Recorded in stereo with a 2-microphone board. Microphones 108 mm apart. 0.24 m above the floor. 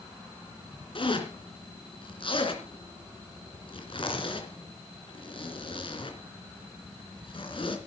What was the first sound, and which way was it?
A zipper, 55° left (ahead or behind).